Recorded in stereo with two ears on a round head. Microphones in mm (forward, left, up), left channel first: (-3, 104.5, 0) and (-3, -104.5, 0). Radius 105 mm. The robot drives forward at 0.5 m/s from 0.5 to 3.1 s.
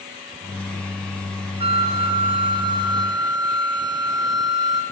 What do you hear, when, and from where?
1.6 s a flute: 25° right (ahead or behind), 2.5 m; by 4.8 s 20° right (ahead or behind), 3.5 m